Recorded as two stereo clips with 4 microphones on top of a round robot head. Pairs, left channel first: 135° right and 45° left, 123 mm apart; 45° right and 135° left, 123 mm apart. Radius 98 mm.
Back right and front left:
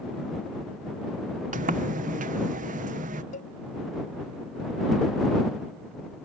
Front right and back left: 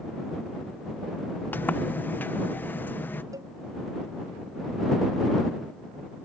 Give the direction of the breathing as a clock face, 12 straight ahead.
No breathing in this recording.